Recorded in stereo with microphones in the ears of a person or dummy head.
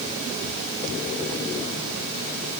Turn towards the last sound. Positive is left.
No sound to turn to.